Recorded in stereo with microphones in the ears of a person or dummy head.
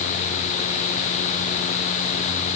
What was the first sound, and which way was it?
Only background noise.